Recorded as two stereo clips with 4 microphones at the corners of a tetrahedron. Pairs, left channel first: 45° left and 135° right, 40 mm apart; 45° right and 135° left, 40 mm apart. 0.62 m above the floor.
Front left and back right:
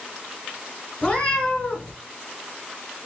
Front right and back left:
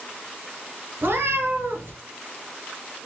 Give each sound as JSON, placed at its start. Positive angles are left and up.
{"t": 1.0, "sound": "a cat meowing", "azimuth_deg": 110, "distance_m": 1.6}